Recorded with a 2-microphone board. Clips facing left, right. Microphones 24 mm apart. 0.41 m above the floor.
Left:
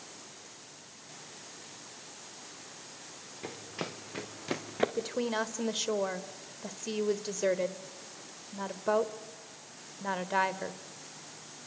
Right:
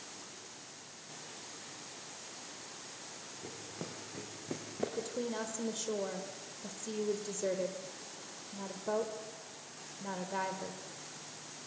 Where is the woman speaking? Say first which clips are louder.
Left 5 dB; 45° left (ahead or behind), 1.4 m.